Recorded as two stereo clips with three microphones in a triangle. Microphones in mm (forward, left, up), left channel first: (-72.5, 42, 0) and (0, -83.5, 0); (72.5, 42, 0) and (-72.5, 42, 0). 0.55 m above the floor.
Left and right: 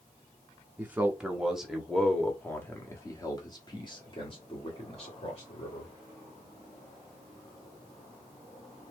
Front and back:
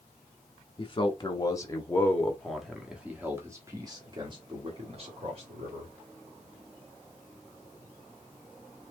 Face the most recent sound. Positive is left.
turn(degrees=155)